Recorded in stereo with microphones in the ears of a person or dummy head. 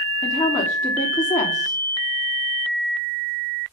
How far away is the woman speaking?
About 3 m.